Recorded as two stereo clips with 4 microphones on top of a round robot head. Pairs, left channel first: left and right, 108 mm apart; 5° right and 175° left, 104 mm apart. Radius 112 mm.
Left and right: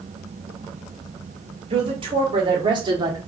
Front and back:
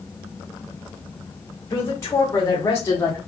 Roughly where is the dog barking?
I don't hear a dog barking.